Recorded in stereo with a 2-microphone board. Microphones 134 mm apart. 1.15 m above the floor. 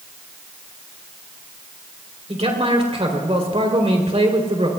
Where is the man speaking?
55° right (ahead or behind), 3.5 m.